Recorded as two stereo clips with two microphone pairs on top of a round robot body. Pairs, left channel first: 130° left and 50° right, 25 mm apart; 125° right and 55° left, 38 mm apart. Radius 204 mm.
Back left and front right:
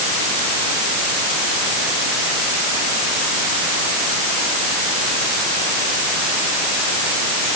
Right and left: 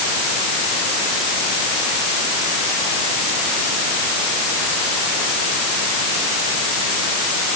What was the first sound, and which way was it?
Only background noise.